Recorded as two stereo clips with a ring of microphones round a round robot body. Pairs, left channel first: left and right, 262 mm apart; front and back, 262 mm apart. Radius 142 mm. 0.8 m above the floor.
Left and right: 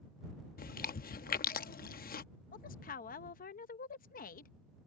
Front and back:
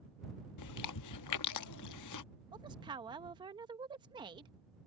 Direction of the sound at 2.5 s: 120° left.